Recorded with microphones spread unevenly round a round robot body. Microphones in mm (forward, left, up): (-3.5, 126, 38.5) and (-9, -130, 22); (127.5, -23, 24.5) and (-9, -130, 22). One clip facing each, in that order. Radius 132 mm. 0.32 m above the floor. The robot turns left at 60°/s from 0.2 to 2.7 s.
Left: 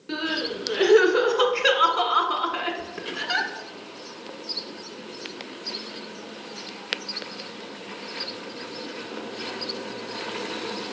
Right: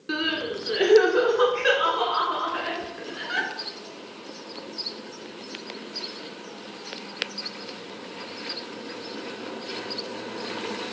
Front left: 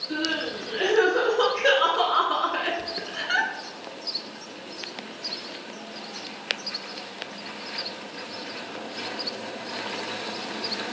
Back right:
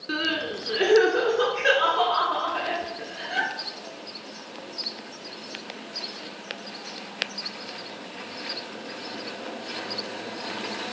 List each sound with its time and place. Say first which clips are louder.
0.1 s crying: even, even; 155° right, 1.7 m; by 3.5 s 55° left, 1.7 m